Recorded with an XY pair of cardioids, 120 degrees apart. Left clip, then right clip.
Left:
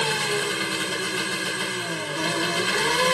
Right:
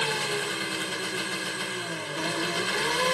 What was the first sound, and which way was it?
An engine running, 25° left.